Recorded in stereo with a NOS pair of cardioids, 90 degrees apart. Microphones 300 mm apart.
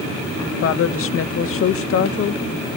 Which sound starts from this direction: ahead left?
A woman speaking, at 0.6 s.